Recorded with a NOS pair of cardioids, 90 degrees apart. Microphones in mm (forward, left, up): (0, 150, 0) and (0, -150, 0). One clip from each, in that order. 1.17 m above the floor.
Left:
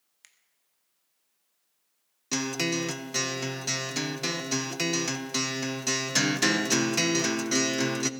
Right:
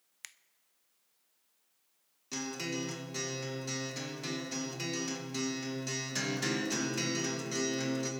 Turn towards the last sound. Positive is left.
turn(degrees=60)